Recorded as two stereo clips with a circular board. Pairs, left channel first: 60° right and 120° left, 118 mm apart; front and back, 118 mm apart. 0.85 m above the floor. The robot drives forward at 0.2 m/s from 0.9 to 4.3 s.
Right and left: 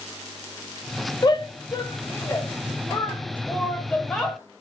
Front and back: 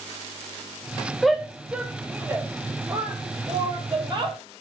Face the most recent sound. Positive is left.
turn(degrees=-145)